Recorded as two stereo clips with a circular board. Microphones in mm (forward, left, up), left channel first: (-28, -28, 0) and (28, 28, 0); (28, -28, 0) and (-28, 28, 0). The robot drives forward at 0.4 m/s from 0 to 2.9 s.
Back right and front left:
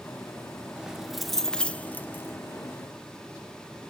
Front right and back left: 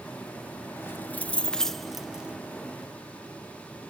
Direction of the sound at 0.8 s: 20° right.